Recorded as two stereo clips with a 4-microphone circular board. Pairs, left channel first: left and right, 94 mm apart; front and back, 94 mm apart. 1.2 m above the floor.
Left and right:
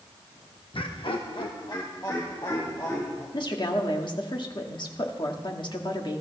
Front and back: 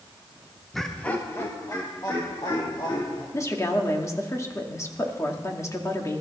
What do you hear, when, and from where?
0.7 s laughter: 90° left, 1.1 m; by 3.2 s 35° left, 3.5 m
3.3 s a woman speaking: 55° left, 2.0 m